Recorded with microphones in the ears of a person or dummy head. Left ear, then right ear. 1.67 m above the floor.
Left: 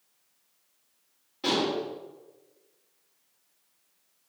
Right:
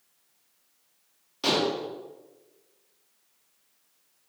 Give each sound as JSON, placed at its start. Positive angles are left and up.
{"t": 1.4, "sound": "dishes clattering", "side_deg": -35, "distance_m": 2.0}